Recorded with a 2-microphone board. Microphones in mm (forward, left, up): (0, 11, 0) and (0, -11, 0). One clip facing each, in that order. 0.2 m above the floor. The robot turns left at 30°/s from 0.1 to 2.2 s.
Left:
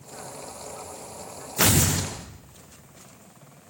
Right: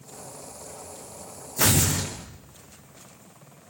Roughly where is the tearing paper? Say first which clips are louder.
Left 1 dB; left.